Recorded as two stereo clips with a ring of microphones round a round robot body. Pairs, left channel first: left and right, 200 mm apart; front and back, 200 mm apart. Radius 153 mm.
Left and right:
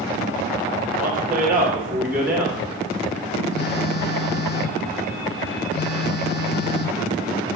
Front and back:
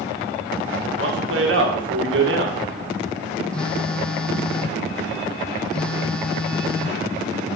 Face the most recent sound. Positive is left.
turn(degrees=85)